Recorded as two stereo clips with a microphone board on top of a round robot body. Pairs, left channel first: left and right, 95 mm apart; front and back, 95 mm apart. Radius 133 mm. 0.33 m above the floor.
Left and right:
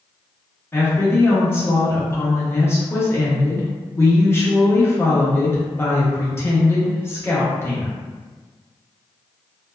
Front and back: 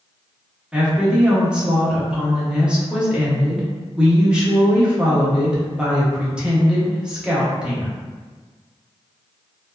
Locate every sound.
0.7 s a woman speaking: 110° left, 1.0 m